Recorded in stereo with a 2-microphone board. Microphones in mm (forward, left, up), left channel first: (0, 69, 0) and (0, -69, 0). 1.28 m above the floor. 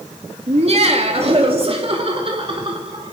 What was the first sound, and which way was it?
Laughter, 50° right (ahead or behind).